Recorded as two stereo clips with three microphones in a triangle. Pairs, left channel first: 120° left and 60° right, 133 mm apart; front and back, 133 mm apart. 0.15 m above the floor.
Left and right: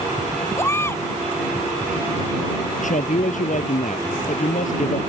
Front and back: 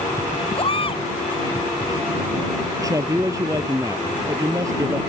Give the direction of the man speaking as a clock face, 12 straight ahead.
8 o'clock.